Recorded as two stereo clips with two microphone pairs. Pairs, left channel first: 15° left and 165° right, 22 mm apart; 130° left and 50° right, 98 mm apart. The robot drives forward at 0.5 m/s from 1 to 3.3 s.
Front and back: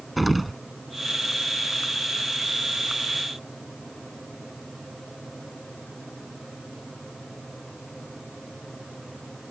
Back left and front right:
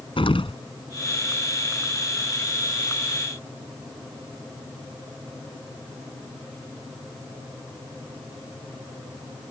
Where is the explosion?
105° left.